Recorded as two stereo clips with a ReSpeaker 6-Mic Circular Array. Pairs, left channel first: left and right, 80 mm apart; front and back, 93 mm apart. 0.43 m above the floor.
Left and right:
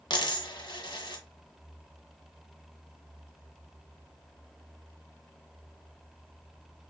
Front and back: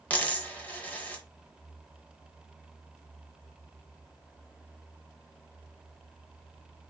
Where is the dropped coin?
70° left, 0.7 m.